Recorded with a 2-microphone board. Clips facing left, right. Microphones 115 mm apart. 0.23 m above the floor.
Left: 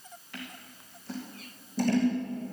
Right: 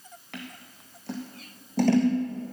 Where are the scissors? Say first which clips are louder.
Right 3 dB; 70° right (ahead or behind), 2.0 m.